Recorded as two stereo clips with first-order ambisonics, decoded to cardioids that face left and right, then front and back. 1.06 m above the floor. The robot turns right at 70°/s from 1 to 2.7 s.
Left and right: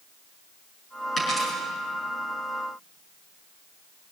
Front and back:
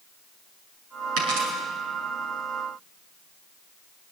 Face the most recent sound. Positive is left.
turn(degrees=-90)